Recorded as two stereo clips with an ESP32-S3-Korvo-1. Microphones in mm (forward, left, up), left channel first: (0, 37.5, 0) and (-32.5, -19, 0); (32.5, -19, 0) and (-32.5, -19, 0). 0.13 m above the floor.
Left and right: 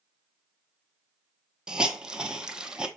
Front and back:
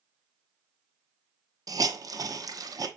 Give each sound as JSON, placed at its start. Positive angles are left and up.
{"t": 1.7, "sound": "a hiss", "azimuth_deg": 165, "distance_m": 0.7}